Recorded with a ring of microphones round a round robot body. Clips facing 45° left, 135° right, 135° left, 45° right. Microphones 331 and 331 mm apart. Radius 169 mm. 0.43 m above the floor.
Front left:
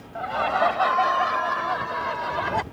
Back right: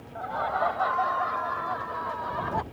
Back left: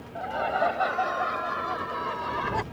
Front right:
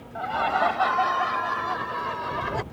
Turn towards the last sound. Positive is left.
turn(degrees=55)